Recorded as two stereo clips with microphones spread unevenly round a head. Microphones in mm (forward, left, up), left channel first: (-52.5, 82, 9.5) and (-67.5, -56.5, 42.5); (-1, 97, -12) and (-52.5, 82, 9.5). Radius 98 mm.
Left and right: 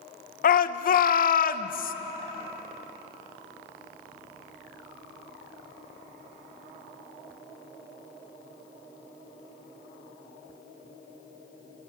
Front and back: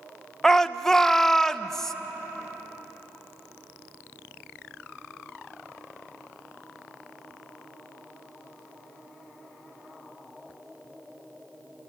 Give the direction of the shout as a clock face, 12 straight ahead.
9 o'clock.